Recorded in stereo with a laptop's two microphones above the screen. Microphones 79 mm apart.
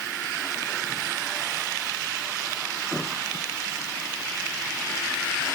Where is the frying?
No frying in this recording.